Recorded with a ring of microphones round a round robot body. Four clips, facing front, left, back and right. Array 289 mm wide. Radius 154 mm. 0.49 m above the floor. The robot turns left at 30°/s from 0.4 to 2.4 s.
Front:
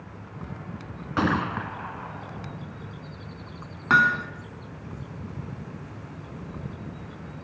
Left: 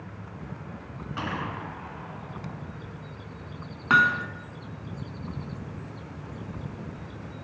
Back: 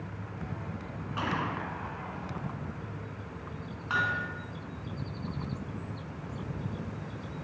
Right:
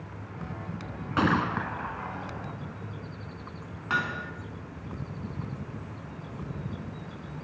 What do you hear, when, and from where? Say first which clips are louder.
1.2 s a gunshot: right 8 dB, front 8 dB; 40° right, 1.8 m; by 2.5 s 75° right, 1.8 m
3.9 s hammering: left 9 dB, front 10 dB; 35° left, 1.7 m